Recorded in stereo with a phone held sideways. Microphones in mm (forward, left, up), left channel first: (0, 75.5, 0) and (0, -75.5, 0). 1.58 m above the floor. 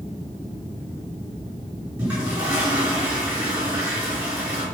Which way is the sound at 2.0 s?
10° right (ahead or behind).